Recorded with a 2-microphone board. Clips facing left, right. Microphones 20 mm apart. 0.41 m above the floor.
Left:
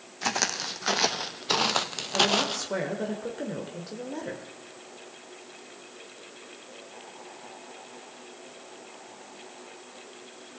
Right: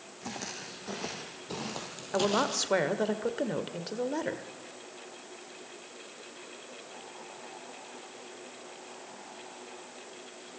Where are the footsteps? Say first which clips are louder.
Left 12 dB; 65° left (ahead or behind), 1.4 m; by 2.6 s 25° left (ahead or behind), 0.8 m.